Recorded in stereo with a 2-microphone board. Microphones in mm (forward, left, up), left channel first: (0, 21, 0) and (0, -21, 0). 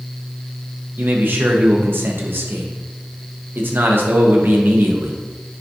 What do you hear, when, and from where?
1.0 s a man speaking: 55° right (ahead or behind), 0.6 m